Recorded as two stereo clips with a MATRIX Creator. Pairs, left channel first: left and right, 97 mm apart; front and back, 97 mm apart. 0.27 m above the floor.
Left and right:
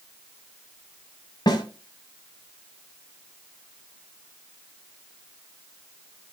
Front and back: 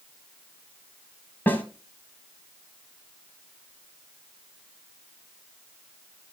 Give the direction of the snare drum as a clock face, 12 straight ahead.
10 o'clock.